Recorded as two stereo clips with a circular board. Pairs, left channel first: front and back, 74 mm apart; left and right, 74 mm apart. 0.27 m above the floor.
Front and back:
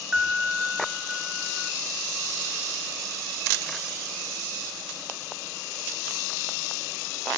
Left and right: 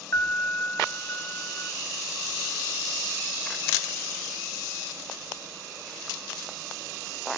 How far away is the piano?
About 1.7 m.